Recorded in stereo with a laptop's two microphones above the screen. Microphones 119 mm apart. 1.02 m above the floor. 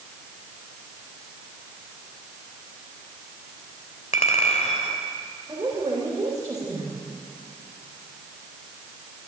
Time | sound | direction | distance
4.1 | a clink | 90° left | 3 m
5.5 | a woman speaking | 35° right (ahead or behind) | 4.5 m